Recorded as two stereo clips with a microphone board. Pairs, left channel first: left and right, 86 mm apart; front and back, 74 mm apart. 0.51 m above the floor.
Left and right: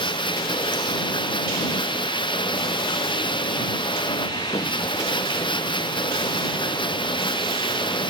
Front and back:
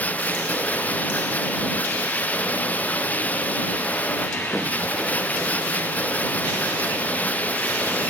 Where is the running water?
70° left.